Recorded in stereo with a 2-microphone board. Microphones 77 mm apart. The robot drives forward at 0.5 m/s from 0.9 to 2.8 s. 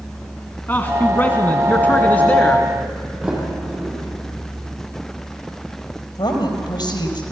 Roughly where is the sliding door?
Centre.